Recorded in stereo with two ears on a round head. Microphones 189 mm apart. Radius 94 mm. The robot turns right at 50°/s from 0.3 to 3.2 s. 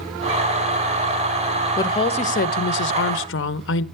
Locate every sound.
1.8 s a woman speaking: 15° left, 0.7 m; by 3.9 s 90° left, 0.7 m